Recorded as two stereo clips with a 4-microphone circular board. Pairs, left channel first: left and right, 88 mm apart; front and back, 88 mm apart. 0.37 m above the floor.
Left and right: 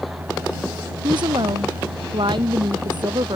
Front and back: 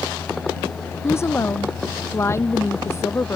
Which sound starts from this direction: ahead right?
A woman speaking, at 1.0 s.